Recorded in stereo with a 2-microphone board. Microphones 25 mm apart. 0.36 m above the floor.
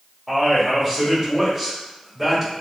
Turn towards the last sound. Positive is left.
turn(degrees=-5)  # may be behind; listen again after turning